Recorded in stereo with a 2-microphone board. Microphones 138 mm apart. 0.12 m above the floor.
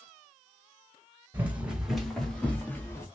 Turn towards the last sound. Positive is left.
turn(degrees=20)  # may be behind; listen again after turning